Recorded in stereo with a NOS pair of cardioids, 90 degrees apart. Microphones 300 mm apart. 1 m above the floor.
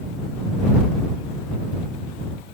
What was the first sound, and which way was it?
Only background noise.